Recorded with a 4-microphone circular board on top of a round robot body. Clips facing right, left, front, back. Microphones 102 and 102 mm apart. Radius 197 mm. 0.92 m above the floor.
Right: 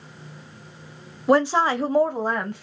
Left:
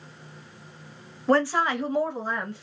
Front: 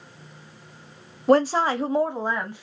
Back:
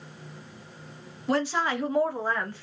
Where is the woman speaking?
15° right, 0.8 m; by 2.6 s 75° right, 1.3 m.